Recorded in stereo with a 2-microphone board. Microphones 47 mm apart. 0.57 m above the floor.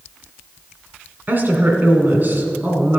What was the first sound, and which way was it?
A woman speaking, 45° right (ahead or behind).